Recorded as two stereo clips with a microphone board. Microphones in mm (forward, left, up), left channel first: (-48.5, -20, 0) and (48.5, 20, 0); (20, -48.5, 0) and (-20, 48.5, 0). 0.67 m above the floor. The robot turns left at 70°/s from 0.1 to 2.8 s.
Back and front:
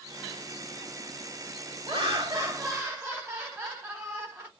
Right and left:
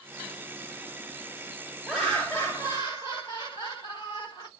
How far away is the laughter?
About 1.5 m.